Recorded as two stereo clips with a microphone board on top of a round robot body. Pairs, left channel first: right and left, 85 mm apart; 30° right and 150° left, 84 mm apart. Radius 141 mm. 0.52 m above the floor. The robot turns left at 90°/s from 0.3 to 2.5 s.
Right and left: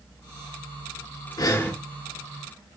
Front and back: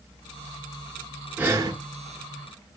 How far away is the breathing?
About 0.5 m.